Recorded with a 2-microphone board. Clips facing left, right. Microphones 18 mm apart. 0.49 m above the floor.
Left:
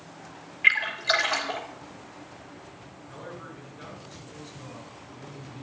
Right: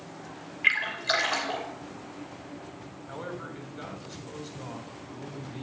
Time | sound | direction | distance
0.6 | a splash | 10° left (ahead or behind) | 2.5 m
3.1 | a man speaking | 45° right (ahead or behind) | 3.5 m